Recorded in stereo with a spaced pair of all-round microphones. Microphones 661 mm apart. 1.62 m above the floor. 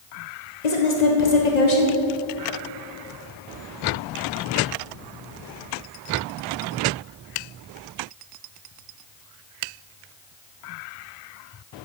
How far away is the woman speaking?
About 1.4 m.